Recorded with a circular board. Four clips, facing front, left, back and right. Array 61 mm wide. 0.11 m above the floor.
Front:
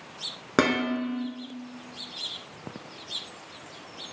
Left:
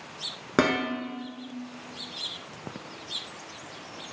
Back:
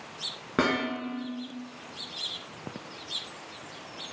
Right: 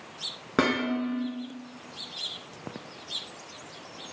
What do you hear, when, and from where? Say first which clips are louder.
0.6 s dishes clattering: left 1 dB, front 3 dB; 20° left, 0.8 m